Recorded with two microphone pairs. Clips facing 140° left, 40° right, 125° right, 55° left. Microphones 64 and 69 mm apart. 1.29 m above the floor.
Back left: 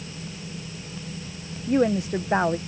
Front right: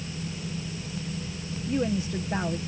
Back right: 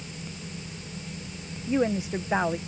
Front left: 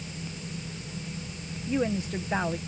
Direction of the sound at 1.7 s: 165° left.